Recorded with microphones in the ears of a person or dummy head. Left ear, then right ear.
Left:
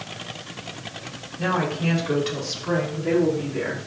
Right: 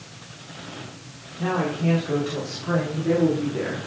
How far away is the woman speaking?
About 5.5 m.